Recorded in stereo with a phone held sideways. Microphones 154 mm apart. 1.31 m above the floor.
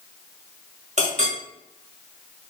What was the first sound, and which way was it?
A clink, 55° right (ahead or behind).